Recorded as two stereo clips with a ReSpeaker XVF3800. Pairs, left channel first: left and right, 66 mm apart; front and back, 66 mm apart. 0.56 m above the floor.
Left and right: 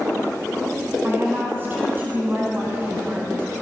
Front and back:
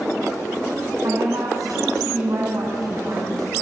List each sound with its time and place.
1.0 s a woman speaking: 150° right, 3.5 m